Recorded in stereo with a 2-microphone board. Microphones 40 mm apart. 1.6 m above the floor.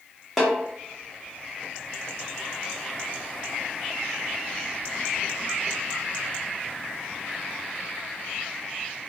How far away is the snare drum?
About 1.0 m.